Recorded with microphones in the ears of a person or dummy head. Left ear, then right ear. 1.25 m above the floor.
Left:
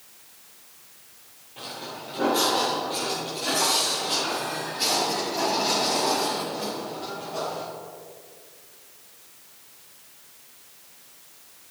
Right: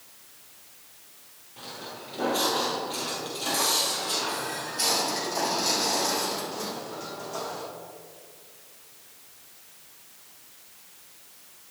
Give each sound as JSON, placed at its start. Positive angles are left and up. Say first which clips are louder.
{"t": 1.6, "sound": "footsteps", "louder": "left 3 dB", "side_deg": 0, "distance_m": 1.9}